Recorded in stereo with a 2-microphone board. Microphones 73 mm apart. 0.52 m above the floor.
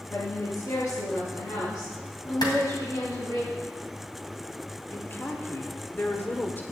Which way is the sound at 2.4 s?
70° left (ahead or behind).